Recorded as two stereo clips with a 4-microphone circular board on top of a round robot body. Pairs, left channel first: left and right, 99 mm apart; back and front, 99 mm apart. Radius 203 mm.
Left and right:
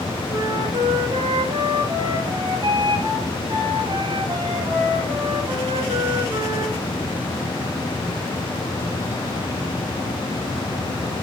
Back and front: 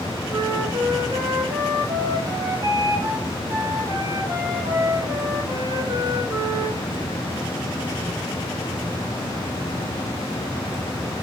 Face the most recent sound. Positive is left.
turn(degrees=-50)